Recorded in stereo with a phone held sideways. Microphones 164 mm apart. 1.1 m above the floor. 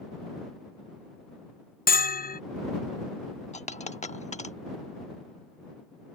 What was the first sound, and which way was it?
A bell, 65° left (ahead or behind).